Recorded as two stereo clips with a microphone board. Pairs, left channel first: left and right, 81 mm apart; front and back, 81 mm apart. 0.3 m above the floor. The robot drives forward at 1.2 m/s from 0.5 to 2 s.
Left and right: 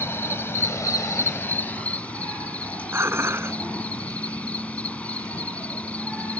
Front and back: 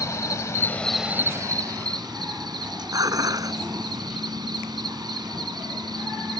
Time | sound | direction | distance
0.0 | an insect | 35° left | ?
2.9 | dishes clattering | 145° right | ?